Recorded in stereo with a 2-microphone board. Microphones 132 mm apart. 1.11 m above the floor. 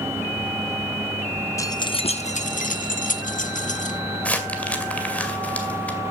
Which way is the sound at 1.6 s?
25° left (ahead or behind).